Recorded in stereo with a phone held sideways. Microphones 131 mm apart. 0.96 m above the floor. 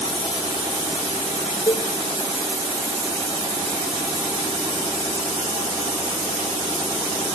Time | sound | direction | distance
1.7 | a cowbell | 35° left (ahead or behind) | 0.7 m